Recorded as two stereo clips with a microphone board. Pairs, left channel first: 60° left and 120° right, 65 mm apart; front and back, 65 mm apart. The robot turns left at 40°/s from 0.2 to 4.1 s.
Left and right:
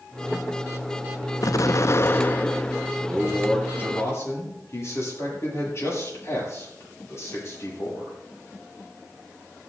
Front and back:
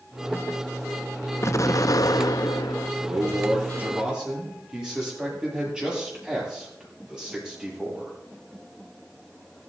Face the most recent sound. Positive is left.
turn(degrees=100)